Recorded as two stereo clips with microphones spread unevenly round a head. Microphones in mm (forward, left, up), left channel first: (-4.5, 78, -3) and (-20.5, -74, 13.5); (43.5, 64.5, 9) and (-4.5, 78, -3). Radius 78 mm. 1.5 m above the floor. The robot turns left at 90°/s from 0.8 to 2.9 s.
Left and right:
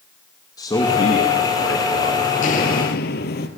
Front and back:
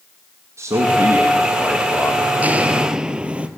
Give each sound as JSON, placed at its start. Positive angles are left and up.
{"t": 0.6, "sound": "a man speaking", "azimuth_deg": 150, "distance_m": 2.5}
{"t": 2.4, "sound": "footsteps", "azimuth_deg": 105, "distance_m": 2.0}